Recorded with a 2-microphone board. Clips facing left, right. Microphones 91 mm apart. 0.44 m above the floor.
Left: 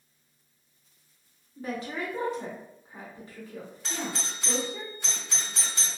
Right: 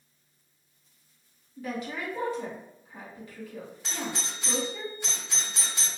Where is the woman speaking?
35° left (ahead or behind), 1.1 m.